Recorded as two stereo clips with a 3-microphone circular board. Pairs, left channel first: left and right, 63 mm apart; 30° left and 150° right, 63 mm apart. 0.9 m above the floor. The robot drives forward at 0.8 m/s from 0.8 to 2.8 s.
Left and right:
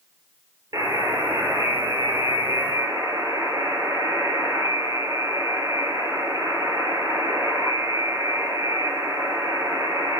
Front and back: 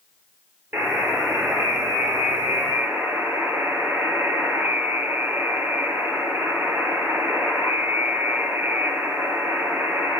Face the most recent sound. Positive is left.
turn(degrees=-100)